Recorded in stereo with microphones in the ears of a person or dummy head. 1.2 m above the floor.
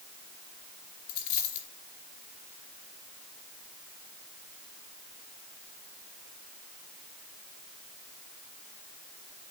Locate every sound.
1.1 s a dropped coin: 50° left (ahead or behind), 3 m